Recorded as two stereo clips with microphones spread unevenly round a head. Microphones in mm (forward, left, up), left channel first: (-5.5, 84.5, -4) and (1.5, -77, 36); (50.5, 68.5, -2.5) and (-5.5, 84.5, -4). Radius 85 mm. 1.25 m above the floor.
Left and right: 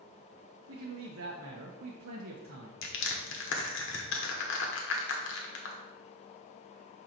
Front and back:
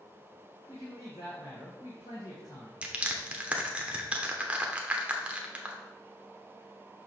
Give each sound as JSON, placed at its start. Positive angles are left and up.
{"t": 0.7, "sound": "a man speaking", "azimuth_deg": -75, "distance_m": 0.8}
{"t": 2.8, "sound": "crushing", "azimuth_deg": 100, "distance_m": 1.1}